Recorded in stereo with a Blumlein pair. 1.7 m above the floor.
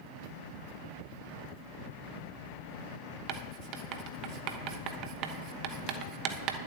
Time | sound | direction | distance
3.3 | writing | 40° right | 1.0 m